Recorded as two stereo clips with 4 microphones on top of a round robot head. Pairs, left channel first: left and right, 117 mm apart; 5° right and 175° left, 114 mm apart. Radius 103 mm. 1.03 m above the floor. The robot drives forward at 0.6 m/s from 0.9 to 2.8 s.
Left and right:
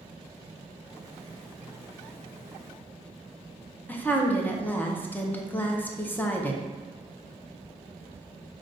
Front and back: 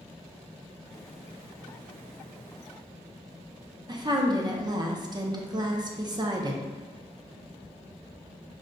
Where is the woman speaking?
155° left, 0.6 m.